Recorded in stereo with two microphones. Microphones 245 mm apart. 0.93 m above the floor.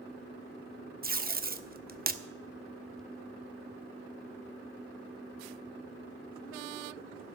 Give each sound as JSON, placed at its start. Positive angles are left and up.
{"t": 1.0, "sound": "tape being pulled", "side_deg": -35, "distance_m": 0.7}